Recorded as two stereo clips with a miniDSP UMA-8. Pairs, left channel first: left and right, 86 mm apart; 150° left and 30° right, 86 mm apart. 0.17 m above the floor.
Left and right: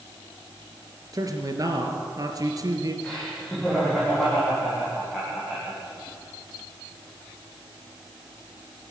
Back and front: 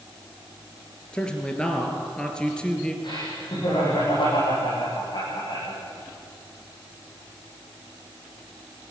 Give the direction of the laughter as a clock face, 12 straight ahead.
6 o'clock.